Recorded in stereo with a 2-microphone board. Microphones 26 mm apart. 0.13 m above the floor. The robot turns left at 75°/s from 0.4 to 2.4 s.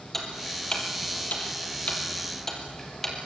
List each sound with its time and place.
0.1 s ticking: 15° left (ahead or behind), 4 m